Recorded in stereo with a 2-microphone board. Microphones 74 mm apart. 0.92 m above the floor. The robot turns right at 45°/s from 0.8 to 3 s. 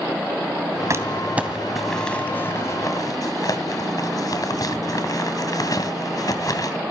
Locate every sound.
0.9 s crumpling: 40° right (ahead or behind), 2.5 m; by 6.8 s 55° left (ahead or behind), 2.5 m